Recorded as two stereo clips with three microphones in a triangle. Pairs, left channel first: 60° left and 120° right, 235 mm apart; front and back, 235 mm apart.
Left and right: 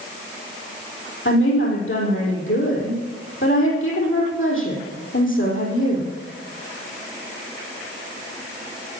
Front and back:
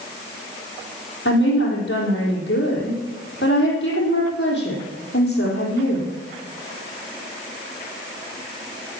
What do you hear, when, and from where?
1.2 s a woman speaking: 35° left, 4.5 m